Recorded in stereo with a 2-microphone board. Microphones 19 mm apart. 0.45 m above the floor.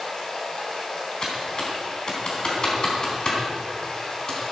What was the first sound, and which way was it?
Running water, 45° left (ahead or behind).